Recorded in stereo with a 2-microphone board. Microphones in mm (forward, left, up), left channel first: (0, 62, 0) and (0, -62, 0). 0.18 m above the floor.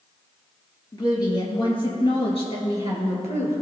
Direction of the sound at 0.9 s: 30° left (ahead or behind).